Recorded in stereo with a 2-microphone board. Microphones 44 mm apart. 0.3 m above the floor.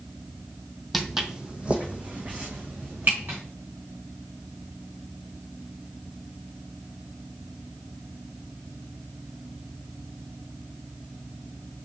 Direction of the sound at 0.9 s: Centre (ahead or behind).